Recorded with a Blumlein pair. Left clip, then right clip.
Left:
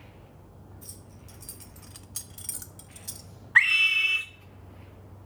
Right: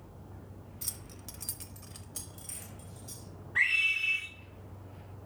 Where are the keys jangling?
55° right, 0.8 m; by 3.3 s 50° left, 1.3 m.